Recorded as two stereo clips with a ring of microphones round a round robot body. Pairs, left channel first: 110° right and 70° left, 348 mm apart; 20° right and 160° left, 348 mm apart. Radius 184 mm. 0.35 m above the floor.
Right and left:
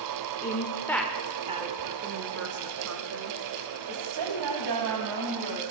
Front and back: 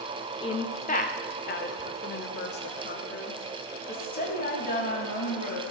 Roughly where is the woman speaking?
Right.